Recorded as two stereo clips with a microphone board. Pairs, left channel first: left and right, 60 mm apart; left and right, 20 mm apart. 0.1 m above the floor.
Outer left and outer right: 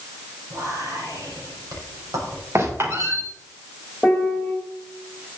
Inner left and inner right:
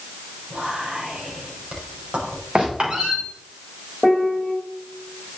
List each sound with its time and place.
0.5 s whispering: 70° right (ahead or behind), 5 m
2.5 s a squeak: 50° right (ahead or behind), 4.5 m
4.0 s a piano: 10° left (ahead or behind), 3 m